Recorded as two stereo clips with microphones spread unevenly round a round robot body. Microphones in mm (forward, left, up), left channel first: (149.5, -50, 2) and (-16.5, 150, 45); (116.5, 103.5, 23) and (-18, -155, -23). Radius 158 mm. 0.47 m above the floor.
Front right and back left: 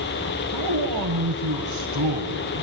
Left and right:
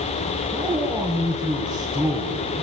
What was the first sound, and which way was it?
A man speaking, 160° left.